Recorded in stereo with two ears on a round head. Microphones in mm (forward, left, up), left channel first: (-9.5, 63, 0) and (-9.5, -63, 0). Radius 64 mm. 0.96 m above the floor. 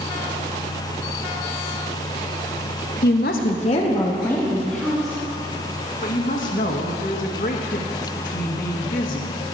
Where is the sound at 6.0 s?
60° left (ahead or behind), 1.4 m.